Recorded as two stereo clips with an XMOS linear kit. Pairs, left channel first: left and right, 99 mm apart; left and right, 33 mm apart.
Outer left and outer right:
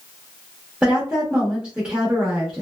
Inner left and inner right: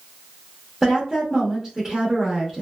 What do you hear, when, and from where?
0.8 s a woman speaking: 10° right (ahead or behind), 0.9 m